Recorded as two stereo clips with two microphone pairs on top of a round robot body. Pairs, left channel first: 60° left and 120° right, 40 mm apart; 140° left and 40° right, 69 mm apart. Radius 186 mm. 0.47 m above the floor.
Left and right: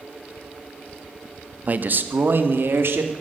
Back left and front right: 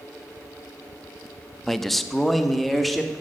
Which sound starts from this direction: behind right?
A man speaking, at 1.7 s.